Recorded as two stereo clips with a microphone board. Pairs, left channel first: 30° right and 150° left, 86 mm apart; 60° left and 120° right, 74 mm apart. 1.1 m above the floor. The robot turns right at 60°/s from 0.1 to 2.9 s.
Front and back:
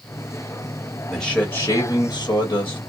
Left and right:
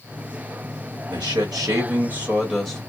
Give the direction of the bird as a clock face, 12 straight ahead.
No bird in this recording.